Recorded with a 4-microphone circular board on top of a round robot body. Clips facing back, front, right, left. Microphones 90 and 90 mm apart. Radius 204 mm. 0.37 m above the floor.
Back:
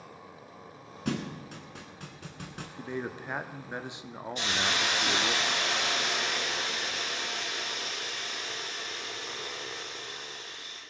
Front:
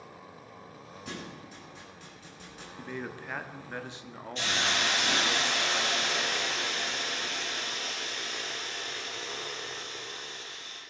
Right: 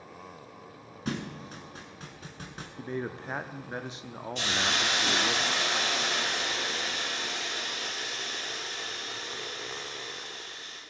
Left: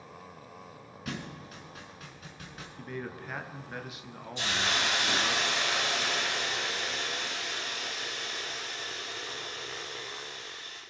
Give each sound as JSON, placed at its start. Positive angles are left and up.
{"t": 1.1, "sound": "a thud", "azimuth_deg": -150, "distance_m": 0.7}
{"t": 2.8, "sound": "a man speaking", "azimuth_deg": -125, "distance_m": 1.0}
{"t": 4.3, "sound": "a hiss", "azimuth_deg": -100, "distance_m": 5.5}